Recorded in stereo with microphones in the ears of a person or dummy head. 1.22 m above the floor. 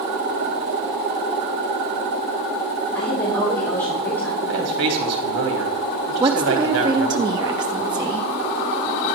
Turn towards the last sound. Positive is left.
turn(degrees=-20)  # may be behind; listen again after turning